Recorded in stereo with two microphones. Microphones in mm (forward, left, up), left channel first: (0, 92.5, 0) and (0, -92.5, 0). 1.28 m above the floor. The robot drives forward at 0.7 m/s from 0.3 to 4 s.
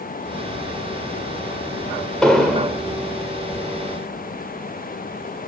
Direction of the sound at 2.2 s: 5° left (ahead or behind).